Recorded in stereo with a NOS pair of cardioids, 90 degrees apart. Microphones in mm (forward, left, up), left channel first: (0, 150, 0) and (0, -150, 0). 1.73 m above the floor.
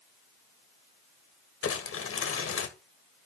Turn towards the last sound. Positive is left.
turn(degrees=45)